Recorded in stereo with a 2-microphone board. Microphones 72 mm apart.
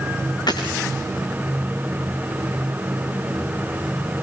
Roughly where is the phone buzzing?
No phone buzzing in this recording.